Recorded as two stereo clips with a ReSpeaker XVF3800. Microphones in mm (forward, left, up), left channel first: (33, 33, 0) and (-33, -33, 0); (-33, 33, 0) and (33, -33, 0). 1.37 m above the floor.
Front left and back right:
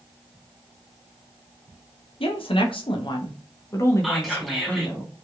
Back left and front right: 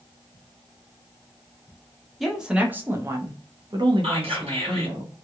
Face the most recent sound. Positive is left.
turn(degrees=-45)